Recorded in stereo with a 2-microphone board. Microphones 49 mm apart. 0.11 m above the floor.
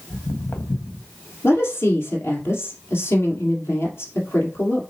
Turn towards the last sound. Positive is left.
turn(degrees=55)  # may be behind; listen again after turning